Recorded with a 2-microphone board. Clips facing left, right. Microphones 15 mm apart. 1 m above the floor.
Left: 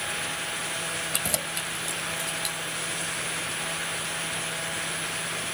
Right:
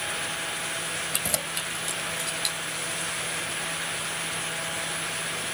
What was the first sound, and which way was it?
Keys jangling, 10° left (ahead or behind).